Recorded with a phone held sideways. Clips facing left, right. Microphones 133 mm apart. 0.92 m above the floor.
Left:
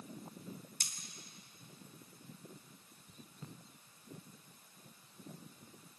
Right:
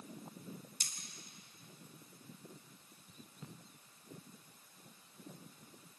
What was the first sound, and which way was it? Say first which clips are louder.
Cutlery clinking: left 1 dB; 55° left (ahead or behind).